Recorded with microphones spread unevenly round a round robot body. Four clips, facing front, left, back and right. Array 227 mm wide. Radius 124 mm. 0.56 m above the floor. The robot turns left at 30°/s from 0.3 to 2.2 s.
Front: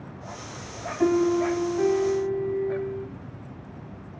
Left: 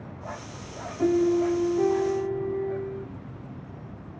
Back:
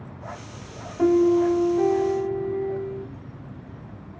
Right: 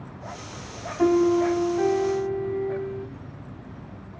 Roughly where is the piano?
Behind.